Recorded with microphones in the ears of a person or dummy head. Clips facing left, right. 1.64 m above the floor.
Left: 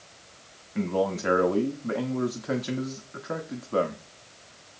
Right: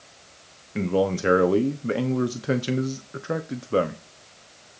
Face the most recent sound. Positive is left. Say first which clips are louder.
# right 3 dB
turn(degrees=-35)  # may be behind; listen again after turning